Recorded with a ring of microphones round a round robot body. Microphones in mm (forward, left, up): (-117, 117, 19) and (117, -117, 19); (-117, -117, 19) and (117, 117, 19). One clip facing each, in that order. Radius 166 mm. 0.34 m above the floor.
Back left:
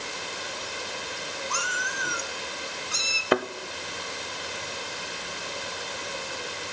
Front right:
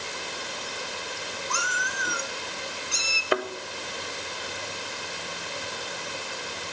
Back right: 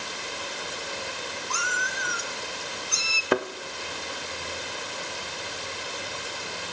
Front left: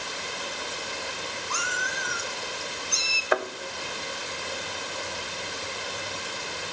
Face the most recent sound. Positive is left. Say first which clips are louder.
# back left 3 dB, back right 3 dB
turn(degrees=175)